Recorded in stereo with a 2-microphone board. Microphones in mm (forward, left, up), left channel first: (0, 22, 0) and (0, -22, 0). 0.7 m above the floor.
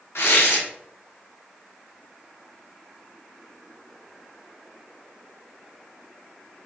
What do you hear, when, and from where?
0.1 s tearing paper: 80° left, 0.7 m